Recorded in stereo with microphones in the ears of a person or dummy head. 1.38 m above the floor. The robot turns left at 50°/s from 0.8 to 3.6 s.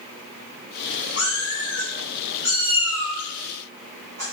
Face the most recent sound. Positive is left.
turn(degrees=-30)  # may be behind; listen again after turning